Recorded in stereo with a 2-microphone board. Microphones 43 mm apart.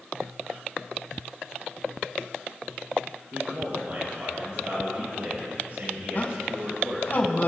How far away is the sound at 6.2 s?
About 2.5 m.